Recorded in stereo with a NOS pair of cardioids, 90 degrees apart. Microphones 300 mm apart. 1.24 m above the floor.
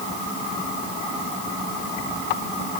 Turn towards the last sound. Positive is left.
No sound to turn to.